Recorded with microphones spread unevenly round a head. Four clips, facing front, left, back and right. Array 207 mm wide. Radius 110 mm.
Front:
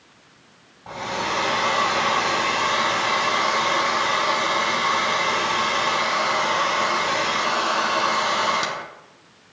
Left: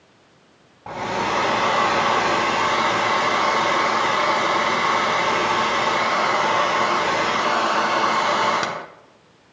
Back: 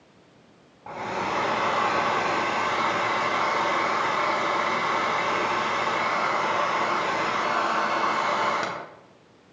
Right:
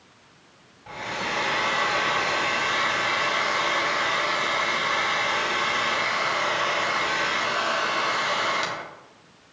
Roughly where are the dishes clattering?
I don't hear dishes clattering.